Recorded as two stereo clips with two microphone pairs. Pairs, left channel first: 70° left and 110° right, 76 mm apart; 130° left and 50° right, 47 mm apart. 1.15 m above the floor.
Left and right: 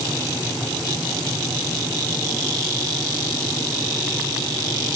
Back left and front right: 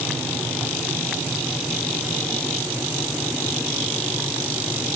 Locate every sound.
Only background noise.